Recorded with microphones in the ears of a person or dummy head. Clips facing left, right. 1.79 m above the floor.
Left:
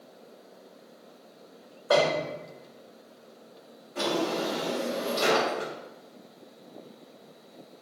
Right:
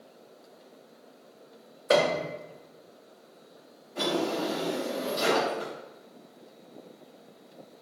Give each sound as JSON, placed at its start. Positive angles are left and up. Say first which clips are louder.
{"t": 1.9, "sound": "a piano", "louder": "even", "side_deg": -30, "distance_m": 0.5}
{"t": 4.0, "sound": "a drawer", "louder": "even", "side_deg": 20, "distance_m": 1.5}